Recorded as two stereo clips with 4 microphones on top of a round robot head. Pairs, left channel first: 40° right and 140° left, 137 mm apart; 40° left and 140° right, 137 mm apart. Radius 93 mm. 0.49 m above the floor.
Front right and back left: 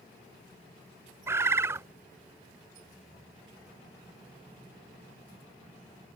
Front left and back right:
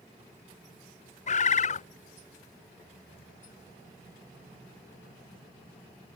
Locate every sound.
1.3 s a bird: 70° left